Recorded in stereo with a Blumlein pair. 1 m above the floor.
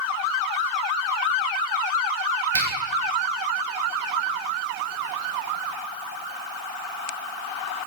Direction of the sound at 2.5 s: 65° right.